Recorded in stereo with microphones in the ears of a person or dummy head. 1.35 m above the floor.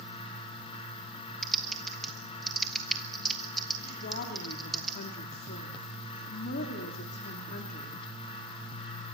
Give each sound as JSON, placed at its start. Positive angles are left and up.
{"t": 1.4, "sound": "typing on a keyboard", "side_deg": 5, "distance_m": 1.3}
{"t": 4.0, "sound": "a woman speaking", "side_deg": 55, "distance_m": 3.0}